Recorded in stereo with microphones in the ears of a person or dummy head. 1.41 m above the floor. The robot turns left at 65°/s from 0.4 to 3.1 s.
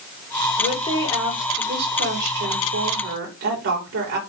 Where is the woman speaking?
50° left, 4 m; by 4.2 s 115° right, 4 m.